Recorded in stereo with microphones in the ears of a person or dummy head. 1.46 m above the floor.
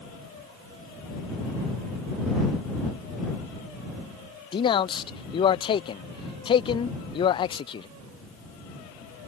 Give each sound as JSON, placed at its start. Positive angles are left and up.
{"t": 4.5, "sound": "a man speaking", "side_deg": 25}